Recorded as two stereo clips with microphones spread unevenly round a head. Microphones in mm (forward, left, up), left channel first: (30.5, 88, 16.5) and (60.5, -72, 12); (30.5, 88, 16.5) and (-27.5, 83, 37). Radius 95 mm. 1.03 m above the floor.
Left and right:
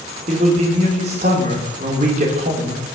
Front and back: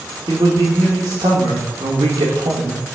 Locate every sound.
0.3 s a man speaking: 135° right, 3.5 m